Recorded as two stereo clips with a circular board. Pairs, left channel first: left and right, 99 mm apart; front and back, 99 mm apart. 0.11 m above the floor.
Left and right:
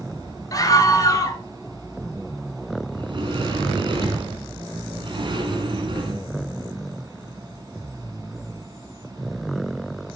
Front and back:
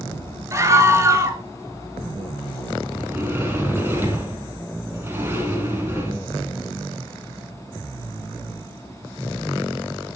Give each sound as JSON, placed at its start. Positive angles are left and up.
{"t": 0.5, "sound": "a scream", "azimuth_deg": 130, "distance_m": 2.0}
{"t": 2.9, "sound": "a sliding door", "azimuth_deg": -115, "distance_m": 3.0}